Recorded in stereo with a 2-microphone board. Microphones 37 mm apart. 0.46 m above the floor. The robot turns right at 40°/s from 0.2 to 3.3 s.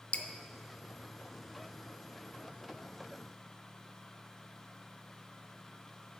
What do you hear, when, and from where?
0.1 s dripping: 35° left (ahead or behind), 0.8 m; by 0.3 s 40° left (ahead or behind), 0.8 m